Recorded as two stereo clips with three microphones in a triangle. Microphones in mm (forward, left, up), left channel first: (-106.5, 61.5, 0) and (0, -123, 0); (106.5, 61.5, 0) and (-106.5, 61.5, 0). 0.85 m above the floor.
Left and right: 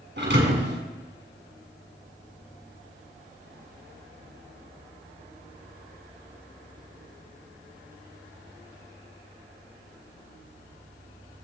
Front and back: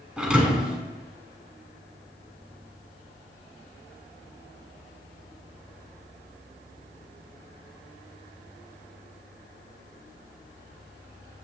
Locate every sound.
0.2 s a thud: 95° right, 4 m